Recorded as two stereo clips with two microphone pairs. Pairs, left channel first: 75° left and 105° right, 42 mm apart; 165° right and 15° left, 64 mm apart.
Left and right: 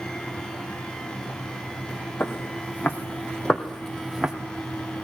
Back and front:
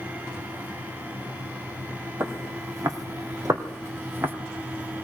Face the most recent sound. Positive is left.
turn(degrees=-35)